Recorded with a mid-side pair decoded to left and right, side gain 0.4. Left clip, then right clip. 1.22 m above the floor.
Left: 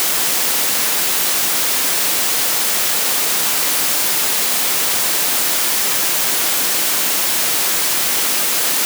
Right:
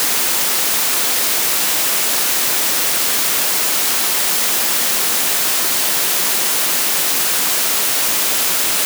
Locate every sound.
Only background noise.